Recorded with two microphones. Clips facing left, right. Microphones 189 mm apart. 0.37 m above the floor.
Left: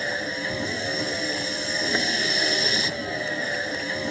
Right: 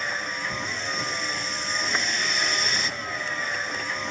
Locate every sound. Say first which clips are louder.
0.0 s a vehicle: left 6 dB; 35° left (ahead or behind)